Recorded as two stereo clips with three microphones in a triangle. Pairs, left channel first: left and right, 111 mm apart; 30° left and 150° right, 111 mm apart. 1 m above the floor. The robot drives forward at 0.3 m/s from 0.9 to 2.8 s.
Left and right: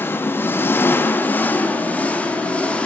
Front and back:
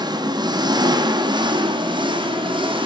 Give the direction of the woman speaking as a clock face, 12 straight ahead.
I don't hear a woman speaking.